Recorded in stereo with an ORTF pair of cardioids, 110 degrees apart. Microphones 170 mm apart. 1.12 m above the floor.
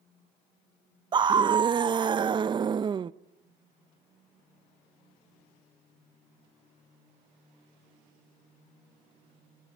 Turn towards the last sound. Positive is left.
turn(degrees=-25)